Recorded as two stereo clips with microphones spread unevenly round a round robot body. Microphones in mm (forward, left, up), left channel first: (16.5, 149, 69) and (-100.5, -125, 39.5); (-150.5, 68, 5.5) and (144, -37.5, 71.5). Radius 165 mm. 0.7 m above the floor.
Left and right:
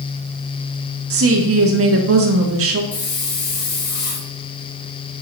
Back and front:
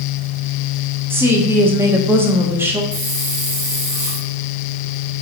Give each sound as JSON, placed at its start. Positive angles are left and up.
{"t": 1.1, "sound": "a woman speaking", "azimuth_deg": -110, "distance_m": 1.1}
{"t": 2.9, "sound": "a hiss", "azimuth_deg": 55, "distance_m": 3.5}